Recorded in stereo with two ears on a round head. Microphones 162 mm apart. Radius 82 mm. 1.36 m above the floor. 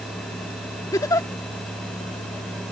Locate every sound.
0.9 s a giggle: 20° left (ahead or behind)